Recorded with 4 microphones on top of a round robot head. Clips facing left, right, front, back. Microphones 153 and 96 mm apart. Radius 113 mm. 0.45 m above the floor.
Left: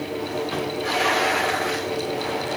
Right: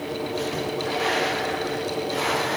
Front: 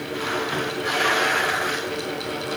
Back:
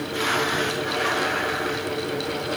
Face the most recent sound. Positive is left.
No sound to turn to.